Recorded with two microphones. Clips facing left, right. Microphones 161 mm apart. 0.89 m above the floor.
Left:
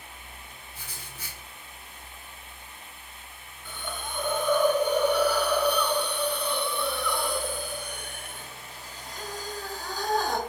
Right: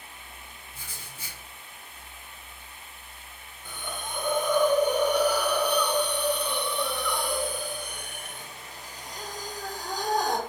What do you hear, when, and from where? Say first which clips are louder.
0.7 s writing: left 1 dB; 25° right (ahead or behind), 1.9 m
3.6 s a hiss: even; 15° right (ahead or behind), 0.8 m